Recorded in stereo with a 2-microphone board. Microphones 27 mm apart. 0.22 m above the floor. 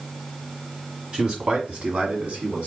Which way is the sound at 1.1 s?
35° right (ahead or behind).